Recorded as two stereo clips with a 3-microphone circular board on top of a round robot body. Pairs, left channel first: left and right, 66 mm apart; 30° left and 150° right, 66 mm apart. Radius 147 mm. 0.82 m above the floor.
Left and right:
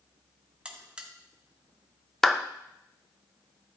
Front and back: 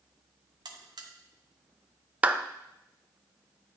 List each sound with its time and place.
0.7 s a buzzer: 165° right, 0.8 m
2.2 s a clap: 165° left, 0.6 m